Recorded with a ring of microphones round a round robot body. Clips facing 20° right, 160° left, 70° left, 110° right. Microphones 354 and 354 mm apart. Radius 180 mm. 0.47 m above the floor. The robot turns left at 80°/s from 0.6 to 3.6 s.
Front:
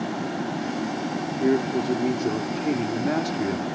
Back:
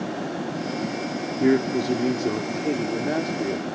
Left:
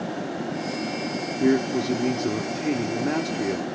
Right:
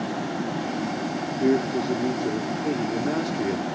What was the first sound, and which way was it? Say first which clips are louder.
A man speaking: back 2 dB, left 1 dB; 140° left.